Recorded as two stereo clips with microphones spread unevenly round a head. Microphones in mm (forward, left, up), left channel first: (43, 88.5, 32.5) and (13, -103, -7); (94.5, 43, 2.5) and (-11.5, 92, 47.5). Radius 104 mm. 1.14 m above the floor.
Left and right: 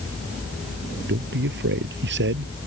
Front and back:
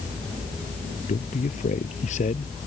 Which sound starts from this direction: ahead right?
A man speaking, at 1.1 s.